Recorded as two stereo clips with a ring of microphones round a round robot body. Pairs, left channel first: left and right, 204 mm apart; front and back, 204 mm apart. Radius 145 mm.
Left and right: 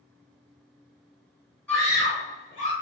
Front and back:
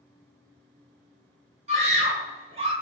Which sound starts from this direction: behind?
A scream, at 1.7 s.